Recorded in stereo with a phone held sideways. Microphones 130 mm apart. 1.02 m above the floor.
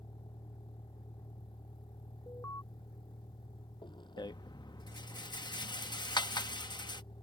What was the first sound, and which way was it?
A vehicle, 35° left (ahead or behind).